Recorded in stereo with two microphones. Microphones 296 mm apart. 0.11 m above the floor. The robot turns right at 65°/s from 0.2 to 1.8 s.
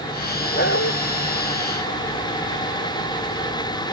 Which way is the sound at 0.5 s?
30° left (ahead or behind).